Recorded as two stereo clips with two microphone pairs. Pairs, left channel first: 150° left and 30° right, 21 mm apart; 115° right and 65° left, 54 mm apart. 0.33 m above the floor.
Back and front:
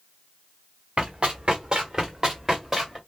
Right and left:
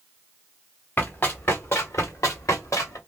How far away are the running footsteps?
About 1.3 m.